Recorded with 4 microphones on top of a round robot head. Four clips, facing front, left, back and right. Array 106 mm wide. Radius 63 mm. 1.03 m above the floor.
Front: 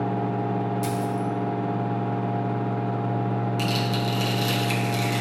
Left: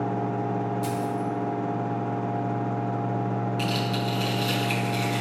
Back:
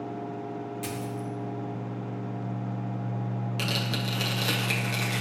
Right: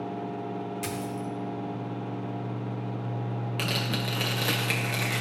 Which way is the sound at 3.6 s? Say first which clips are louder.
Left 4 dB, front 6 dB; 110° right.